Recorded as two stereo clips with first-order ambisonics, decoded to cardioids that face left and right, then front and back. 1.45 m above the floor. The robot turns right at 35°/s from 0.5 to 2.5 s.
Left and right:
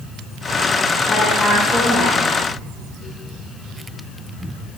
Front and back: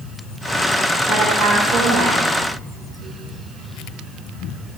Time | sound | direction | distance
1.1 | a woman speaking | 160° left | 2.5 m